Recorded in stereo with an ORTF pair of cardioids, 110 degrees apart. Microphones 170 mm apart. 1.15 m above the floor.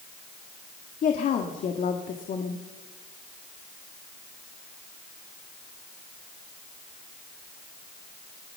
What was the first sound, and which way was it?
A woman speaking, 50° left.